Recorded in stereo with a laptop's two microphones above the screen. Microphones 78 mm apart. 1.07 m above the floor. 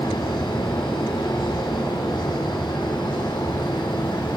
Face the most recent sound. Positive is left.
turn(degrees=80)